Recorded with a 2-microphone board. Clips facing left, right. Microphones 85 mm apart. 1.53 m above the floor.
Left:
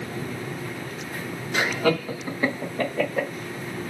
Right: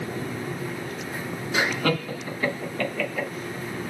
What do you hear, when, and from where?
1.5 s laughter: 5° right (ahead or behind), 1.1 m; by 3.3 s 40° left (ahead or behind), 1.4 m